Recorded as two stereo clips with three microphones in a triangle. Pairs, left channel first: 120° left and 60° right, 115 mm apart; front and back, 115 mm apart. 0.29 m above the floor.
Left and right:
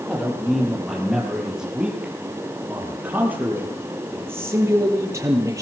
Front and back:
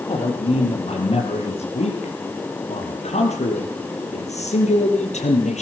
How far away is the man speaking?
About 10 m.